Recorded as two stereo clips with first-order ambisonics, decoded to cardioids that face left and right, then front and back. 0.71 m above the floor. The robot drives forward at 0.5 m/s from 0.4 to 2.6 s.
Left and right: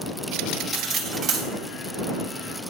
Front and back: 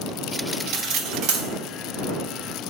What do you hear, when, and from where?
0.7 s cutlery clinking: 145° right, 1.5 m; by 1.5 s 150° right, 1.8 m